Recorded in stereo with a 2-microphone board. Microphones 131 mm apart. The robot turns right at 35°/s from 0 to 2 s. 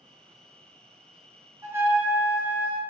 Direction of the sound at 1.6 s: 25° right (ahead or behind).